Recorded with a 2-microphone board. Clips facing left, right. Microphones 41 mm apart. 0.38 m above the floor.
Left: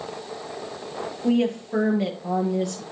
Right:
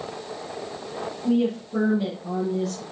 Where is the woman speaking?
65° left (ahead or behind), 7 m; by 2.8 s 75° left (ahead or behind), 7.5 m.